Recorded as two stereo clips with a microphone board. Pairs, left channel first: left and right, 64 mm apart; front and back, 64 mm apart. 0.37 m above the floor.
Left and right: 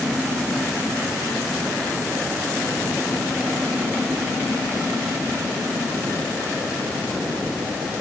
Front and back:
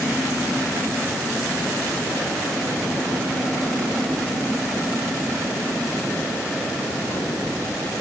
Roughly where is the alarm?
I don't hear an alarm.